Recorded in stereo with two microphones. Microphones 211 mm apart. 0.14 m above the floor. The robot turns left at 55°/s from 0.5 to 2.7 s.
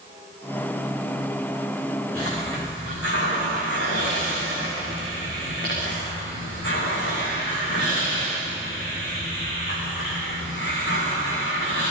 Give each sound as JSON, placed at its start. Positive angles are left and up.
{"t": 2.1, "sound": "a hiss", "azimuth_deg": 95, "distance_m": 10.0}